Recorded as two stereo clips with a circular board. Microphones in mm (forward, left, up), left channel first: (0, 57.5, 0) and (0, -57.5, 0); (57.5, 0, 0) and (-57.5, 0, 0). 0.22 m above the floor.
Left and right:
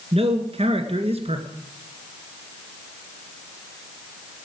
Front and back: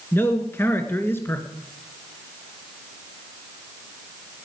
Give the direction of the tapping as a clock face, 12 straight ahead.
No tapping in this recording.